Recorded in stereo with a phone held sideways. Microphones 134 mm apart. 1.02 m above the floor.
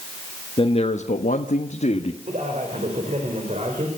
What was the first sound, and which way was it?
A man speaking, 40° left (ahead or behind).